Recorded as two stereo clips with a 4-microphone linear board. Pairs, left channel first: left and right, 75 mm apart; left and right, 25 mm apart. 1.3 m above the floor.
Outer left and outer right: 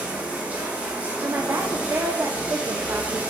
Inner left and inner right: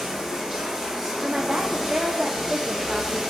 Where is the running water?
20° right (ahead or behind), 1.4 m.